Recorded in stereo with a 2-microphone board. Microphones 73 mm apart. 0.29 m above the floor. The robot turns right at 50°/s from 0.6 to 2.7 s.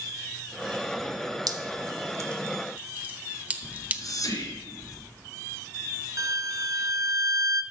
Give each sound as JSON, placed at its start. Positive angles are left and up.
{"t": 1.5, "sound": "dripping", "side_deg": -70, "distance_m": 0.8}
{"t": 3.6, "sound": "whispering", "side_deg": 65, "distance_m": 3.0}
{"t": 6.2, "sound": "a violin", "side_deg": -50, "distance_m": 0.6}